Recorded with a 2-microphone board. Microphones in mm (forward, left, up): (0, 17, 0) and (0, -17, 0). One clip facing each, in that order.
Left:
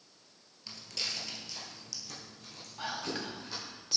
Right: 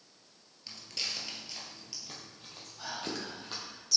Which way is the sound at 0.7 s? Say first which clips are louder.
Even; 5° left (ahead or behind).